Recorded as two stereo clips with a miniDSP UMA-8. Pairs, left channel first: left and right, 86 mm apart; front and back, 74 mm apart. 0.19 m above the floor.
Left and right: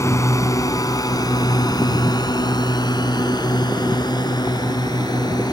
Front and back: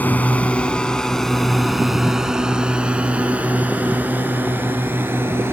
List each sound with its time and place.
0.0 s a drone: 55° left; by 5.5 s 125° left